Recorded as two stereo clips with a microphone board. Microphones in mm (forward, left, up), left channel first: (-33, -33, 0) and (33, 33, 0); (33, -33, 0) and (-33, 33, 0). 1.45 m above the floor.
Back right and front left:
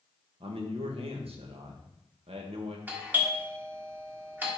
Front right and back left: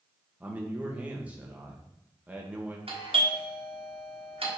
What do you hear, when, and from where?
0.4 s a man speaking: 55° left, 1.2 m
2.9 s a doorbell: 115° left, 1.5 m